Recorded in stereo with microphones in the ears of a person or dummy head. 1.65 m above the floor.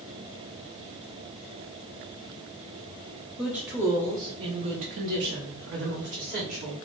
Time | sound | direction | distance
3.4 | a woman speaking | 5° right (ahead or behind) | 1.1 m